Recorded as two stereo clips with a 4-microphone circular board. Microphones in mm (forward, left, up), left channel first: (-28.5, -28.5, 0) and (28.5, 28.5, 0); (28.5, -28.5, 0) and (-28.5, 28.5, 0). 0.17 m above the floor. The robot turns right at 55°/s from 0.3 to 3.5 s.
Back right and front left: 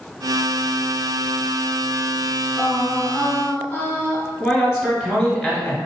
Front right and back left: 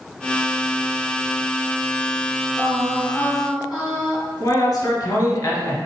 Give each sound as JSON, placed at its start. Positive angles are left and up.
{"t": 2.6, "sound": "singing", "azimuth_deg": 150, "distance_m": 1.6}
{"t": 4.4, "sound": "a man speaking", "azimuth_deg": -70, "distance_m": 1.4}